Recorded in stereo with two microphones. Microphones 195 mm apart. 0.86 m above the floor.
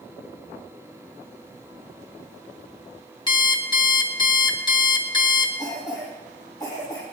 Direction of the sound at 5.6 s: 20° left (ahead or behind).